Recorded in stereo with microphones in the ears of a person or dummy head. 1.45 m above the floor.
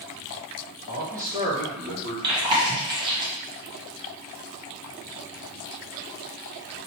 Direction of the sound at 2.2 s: 25° right (ahead or behind).